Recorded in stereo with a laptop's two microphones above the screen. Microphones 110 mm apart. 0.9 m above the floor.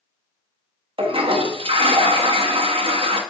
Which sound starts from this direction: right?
A toilet flushing, at 1.0 s.